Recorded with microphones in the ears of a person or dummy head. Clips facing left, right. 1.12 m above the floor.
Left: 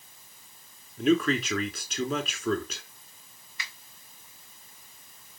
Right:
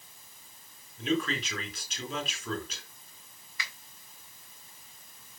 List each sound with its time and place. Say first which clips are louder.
1.0 s a man speaking: left 7 dB; 50° left (ahead or behind), 3 m
3.6 s a finger snap: right 1 dB; 90° right, 4.5 m